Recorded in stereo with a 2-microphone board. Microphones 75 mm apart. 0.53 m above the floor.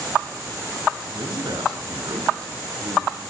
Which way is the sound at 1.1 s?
75° right (ahead or behind).